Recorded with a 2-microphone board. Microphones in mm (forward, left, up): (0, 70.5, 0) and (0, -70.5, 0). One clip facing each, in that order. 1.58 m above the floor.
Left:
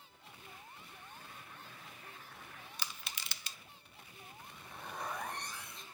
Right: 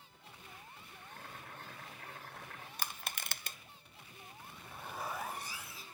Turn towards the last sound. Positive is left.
turn(degrees=-5)  # may be behind; listen again after turning